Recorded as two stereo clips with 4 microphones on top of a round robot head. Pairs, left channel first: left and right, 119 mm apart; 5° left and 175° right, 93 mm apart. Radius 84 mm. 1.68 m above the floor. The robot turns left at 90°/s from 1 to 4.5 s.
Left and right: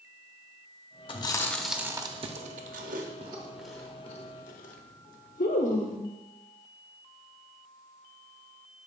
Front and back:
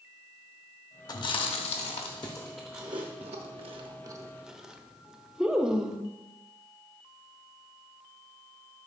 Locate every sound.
1.1 s chewing: 50° left, 0.7 m; by 6.0 s 100° left, 0.7 m